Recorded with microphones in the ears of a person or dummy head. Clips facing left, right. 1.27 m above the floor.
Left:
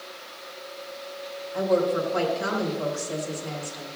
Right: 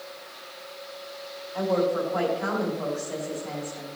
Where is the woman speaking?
45° left (ahead or behind), 4 m.